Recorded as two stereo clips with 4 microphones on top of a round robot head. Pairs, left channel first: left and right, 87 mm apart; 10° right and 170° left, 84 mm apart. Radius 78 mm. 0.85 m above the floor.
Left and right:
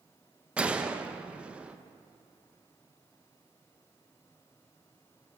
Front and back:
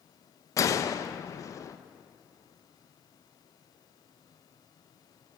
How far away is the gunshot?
About 0.6 m.